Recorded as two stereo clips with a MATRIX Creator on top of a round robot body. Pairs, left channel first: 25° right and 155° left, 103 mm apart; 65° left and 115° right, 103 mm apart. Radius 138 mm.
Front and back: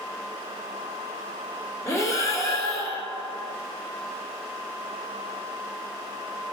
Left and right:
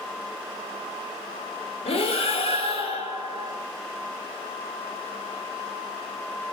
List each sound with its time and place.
1.9 s breathing: 40° left, 2.5 m